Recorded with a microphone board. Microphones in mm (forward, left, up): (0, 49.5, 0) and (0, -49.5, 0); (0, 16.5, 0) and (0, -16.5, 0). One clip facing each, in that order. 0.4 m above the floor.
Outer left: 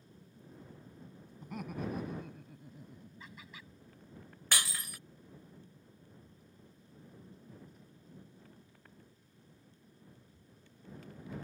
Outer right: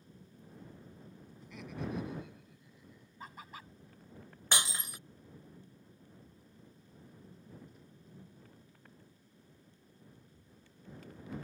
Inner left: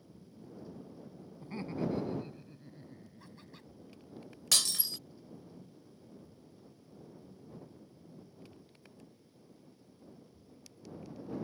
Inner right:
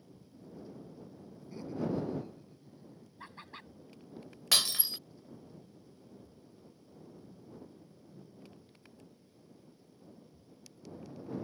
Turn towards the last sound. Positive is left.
turn(degrees=-25)  # may be behind; listen again after turning